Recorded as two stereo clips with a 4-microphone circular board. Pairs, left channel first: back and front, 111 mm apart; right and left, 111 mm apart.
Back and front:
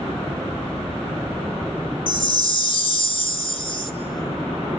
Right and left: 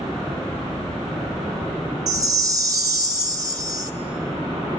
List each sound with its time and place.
2.1 s a chime: 145° left, 0.6 m